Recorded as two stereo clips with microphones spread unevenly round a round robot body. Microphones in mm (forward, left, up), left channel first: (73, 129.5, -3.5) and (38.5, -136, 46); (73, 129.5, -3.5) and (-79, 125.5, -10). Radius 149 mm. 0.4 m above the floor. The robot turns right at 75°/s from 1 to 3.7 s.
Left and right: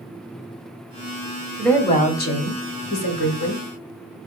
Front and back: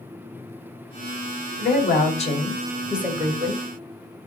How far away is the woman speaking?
About 1.5 m.